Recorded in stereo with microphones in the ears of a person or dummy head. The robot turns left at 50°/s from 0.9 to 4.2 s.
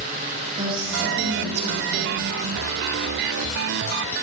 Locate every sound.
0.6 s a woman speaking: 30° right, 2.5 m; by 2.3 s 95° right, 2.5 m